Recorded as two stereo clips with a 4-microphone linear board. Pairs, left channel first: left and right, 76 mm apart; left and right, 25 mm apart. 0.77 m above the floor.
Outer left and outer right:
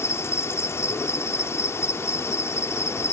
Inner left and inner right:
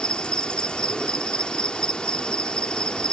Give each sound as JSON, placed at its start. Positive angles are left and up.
{"t": 0.0, "sound": "an insect", "side_deg": 40}